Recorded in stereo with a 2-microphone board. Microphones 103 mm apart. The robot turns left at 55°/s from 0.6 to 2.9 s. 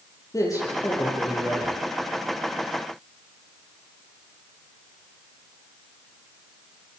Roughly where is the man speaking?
Ahead left.